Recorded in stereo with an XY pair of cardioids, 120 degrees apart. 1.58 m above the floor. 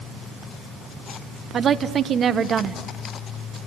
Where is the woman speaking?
40° right, 1.2 m.